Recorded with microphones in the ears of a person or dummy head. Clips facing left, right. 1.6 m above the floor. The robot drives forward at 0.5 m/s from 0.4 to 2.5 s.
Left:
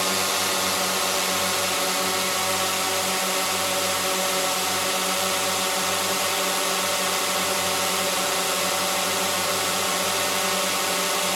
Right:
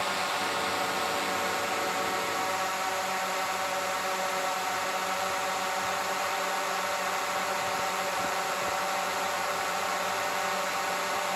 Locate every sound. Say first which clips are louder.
0.0 s a drone: left 5 dB; 60° left (ahead or behind); by 11.4 s 55° left (ahead or behind)